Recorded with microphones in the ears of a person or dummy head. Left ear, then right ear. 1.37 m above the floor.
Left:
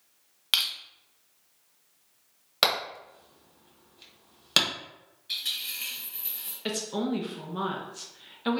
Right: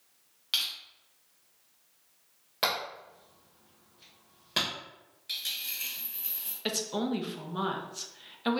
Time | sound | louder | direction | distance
0.5 | crushing | left 5 dB | 30° left (ahead or behind) | 0.5 m
2.6 | hammering | left 5 dB | 35° left (ahead or behind) | 1.5 m
5.3 | a dropped coin | left 3 dB | 45° right (ahead or behind) | 1.6 m
6.7 | a woman speaking | left 1 dB | 5° right (ahead or behind) | 0.5 m